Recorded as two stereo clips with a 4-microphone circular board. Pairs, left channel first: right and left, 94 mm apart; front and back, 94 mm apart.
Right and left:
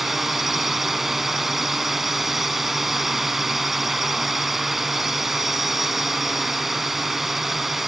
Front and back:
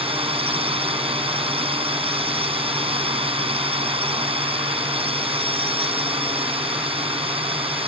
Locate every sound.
0.0 s a drone: straight behind